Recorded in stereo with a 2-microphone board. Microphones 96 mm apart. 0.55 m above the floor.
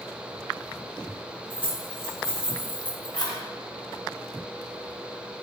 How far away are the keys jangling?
About 2.0 m.